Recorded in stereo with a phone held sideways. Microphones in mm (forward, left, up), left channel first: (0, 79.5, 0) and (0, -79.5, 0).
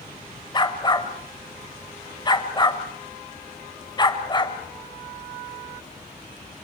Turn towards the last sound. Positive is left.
turn(degrees=30)  # may be behind; listen again after turning